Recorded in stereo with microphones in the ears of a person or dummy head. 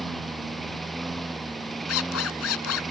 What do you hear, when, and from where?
0.0 s a lawn mower: centre (ahead or behind)
1.9 s a zipper: 90° left